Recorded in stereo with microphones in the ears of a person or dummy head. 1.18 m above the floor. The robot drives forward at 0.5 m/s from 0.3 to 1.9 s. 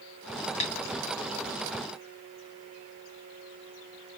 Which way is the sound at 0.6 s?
30° left (ahead or behind).